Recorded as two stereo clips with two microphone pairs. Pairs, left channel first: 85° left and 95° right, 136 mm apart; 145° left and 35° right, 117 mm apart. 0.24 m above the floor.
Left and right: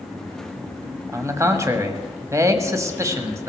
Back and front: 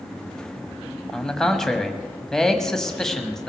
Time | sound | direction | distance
1.1 | a man speaking | 130° right | 1.4 m